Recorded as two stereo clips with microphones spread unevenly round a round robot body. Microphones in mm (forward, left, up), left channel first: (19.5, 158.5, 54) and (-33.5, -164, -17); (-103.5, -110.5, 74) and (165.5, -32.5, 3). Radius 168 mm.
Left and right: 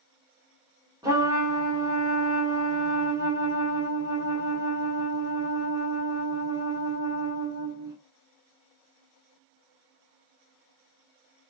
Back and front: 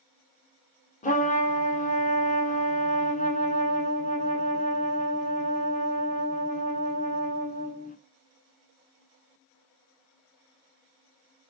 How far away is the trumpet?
About 0.9 m.